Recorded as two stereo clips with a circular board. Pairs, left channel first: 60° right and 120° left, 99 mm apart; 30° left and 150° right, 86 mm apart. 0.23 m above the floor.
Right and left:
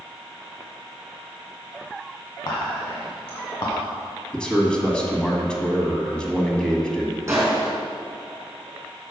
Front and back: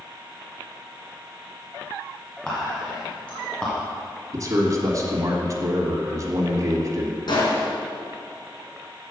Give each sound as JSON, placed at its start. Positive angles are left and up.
{"t": 2.5, "sound": "whispering", "azimuth_deg": -45, "distance_m": 1.5}
{"t": 4.3, "sound": "a man speaking", "azimuth_deg": -135, "distance_m": 1.5}
{"t": 7.3, "sound": "a gunshot", "azimuth_deg": 55, "distance_m": 3.0}